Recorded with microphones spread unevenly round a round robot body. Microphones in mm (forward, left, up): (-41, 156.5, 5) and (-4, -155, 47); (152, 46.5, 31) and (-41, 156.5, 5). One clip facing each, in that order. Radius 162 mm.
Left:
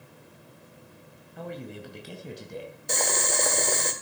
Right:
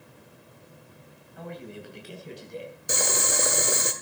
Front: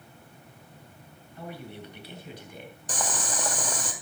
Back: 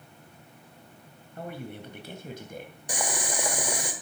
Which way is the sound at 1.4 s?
130° left.